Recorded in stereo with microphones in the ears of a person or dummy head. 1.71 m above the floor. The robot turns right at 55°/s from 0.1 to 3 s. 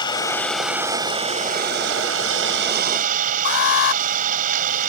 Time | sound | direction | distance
0.0 | an engine running | 150° left | ?
3.5 | an alarm | 70° left (ahead or behind) | ?